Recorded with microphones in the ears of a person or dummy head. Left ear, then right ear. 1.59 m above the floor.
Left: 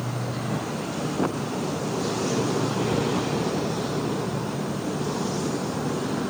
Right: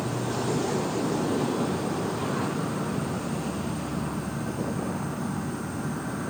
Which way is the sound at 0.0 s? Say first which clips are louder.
Right 2 dB; 65° right (ahead or behind).